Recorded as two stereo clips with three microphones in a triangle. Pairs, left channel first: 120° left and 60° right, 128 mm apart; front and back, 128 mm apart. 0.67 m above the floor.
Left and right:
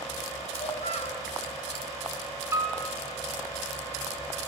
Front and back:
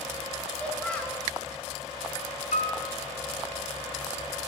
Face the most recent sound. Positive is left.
turn(degrees=5)